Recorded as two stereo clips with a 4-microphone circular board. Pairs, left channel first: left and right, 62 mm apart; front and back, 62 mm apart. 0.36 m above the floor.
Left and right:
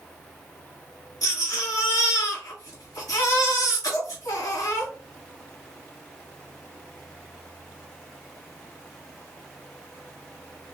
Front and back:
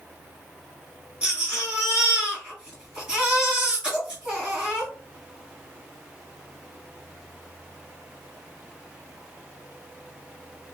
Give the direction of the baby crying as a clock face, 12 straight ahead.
8 o'clock.